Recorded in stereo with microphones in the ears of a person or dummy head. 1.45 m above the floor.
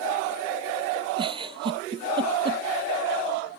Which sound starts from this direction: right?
A giggle, at 1.2 s.